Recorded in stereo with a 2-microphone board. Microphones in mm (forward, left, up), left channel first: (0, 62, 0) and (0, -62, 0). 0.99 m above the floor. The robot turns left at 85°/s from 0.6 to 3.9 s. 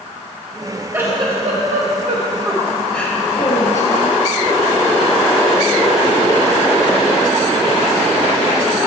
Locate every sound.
0.9 s a giggle: 15° right, 1.0 m; by 4.2 s 95° left, 1.0 m